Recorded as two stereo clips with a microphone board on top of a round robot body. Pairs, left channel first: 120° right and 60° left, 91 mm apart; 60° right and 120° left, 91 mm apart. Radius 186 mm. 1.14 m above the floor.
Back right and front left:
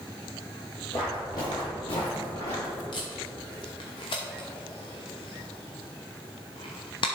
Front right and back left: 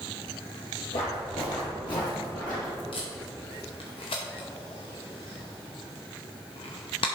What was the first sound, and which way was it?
Footsteps, 55° right.